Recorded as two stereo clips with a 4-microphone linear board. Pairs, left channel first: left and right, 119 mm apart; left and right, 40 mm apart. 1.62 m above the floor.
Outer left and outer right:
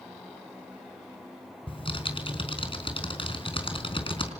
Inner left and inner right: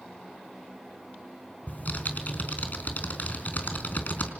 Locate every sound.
1.7 s typing on a keyboard: 50° left (ahead or behind), 4.5 m